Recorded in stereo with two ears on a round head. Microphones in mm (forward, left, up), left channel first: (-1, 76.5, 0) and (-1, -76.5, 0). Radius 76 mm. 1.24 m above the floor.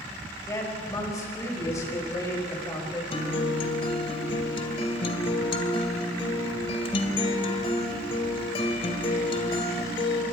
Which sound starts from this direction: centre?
A woman speaking, at 0.5 s.